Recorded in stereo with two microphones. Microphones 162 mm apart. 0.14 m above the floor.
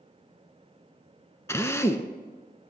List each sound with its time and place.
1.5 s a drill: 15° left (ahead or behind), 0.6 m